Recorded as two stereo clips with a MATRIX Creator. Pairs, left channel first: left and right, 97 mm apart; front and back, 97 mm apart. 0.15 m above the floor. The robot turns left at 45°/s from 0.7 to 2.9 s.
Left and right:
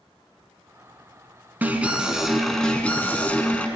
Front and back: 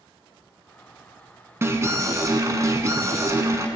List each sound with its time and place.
1.6 s an alarm: 145° right, 0.8 m; by 3.7 s 155° left, 0.8 m